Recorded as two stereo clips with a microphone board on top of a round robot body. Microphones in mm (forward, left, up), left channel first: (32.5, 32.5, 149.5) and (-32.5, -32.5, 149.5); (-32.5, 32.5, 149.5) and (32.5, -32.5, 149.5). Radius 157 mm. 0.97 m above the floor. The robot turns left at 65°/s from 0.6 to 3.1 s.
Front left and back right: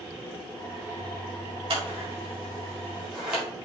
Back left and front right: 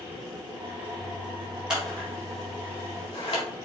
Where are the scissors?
125° right, 2.5 m; by 3.4 s 145° left, 2.5 m.